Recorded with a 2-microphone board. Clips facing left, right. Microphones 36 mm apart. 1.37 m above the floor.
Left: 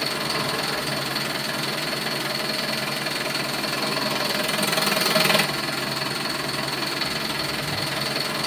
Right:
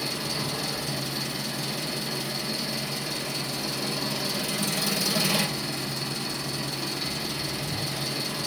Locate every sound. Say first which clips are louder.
0.0 s an engine running: left 5 dB; 60° left (ahead or behind), 1.1 m